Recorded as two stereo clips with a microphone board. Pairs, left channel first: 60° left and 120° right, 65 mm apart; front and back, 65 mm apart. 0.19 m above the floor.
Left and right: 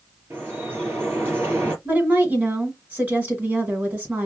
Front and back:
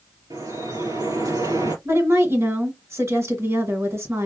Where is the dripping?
175° right, 4 m.